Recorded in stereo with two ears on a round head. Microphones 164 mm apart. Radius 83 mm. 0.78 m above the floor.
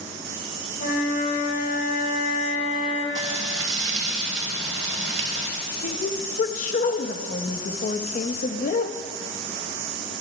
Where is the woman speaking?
45° left (ahead or behind), 0.7 m.